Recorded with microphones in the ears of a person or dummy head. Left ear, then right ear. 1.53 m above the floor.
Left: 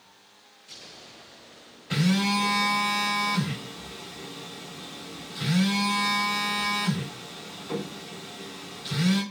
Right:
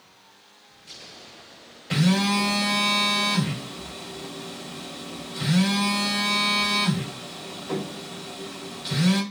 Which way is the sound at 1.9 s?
15° right (ahead or behind).